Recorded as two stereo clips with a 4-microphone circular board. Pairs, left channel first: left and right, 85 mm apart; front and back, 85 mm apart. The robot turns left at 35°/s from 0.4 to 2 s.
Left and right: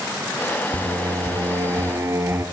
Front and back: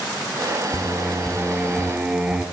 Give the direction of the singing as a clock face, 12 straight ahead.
2 o'clock.